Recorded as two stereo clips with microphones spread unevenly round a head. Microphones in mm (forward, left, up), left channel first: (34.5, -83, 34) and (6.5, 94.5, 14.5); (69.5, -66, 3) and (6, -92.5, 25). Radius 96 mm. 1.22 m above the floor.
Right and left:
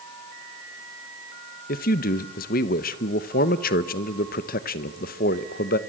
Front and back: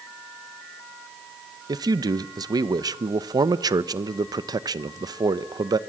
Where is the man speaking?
130° right, 0.9 m.